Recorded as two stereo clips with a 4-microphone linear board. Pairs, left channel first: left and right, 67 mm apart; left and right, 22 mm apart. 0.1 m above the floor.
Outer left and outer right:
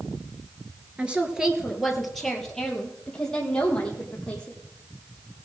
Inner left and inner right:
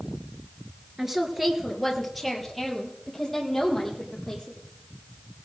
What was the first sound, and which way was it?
A woman speaking, 20° right (ahead or behind).